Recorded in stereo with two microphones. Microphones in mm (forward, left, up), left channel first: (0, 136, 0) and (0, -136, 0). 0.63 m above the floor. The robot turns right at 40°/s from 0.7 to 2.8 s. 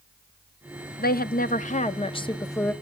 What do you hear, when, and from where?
1.0 s a woman speaking: 100° left, 0.6 m; by 2.7 s 170° left, 0.6 m